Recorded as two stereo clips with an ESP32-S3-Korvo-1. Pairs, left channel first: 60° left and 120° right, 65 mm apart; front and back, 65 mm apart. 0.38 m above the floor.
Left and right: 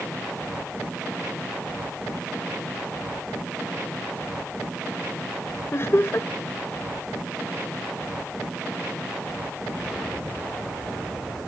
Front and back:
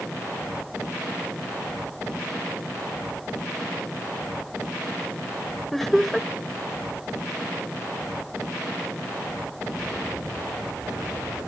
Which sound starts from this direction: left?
Laughter, at 5.7 s.